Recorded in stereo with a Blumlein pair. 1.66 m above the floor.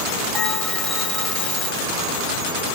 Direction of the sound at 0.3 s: 5° left.